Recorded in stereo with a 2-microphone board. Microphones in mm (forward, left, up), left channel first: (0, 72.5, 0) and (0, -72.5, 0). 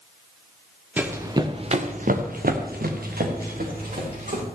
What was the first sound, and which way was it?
Running footsteps, 10° right (ahead or behind).